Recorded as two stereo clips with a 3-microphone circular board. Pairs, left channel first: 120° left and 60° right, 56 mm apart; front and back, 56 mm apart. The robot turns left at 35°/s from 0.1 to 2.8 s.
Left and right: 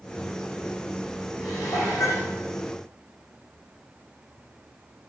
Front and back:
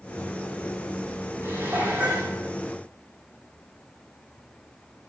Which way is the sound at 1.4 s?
140° left.